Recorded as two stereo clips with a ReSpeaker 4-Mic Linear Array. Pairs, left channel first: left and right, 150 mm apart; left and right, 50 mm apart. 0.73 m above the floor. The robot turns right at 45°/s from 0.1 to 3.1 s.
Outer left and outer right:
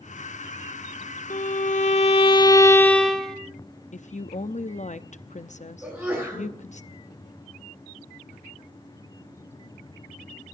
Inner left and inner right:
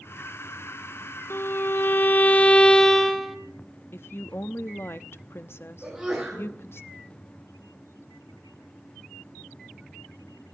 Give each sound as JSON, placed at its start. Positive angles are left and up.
{"t": 1.3, "sound": "a violin", "azimuth_deg": 95, "distance_m": 1.3}
{"t": 3.9, "sound": "a woman speaking", "side_deg": 55, "distance_m": 0.7}
{"t": 5.8, "sound": "a sneeze", "side_deg": -5, "distance_m": 8.0}